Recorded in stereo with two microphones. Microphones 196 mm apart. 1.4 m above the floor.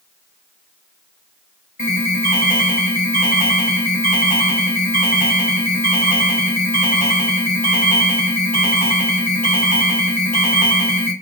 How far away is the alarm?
About 3.5 m.